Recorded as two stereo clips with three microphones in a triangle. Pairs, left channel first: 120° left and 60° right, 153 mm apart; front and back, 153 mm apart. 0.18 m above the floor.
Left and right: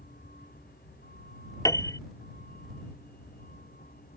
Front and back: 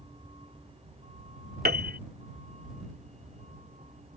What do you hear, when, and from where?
0.0 s a vehicle: 130° left; by 4.2 s 140° left
1.6 s a piano: 175° right